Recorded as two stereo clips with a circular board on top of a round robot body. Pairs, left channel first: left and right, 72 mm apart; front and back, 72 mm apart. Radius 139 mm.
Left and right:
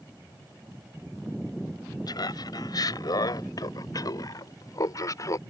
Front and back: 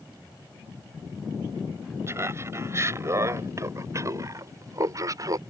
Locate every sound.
2.1 s laughter: 125° left; by 5.4 s 135° left